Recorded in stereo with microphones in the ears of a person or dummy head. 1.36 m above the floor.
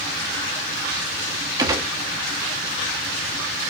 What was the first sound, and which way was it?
A gunshot, 25° right (ahead or behind).